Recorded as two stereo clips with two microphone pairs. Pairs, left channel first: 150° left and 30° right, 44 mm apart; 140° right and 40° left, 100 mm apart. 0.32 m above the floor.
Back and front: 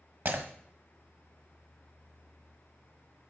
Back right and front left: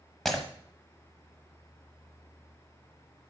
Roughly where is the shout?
No shout in this recording.